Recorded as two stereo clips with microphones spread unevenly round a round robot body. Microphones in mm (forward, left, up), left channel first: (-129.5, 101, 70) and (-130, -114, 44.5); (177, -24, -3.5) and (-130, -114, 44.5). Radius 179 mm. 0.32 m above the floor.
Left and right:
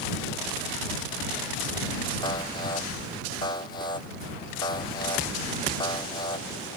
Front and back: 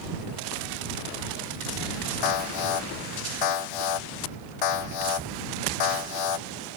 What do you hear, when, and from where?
2.2 s an alarm: 10° left